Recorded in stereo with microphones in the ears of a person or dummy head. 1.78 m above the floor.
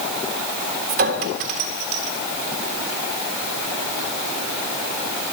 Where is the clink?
50° right (ahead or behind), 1.6 m.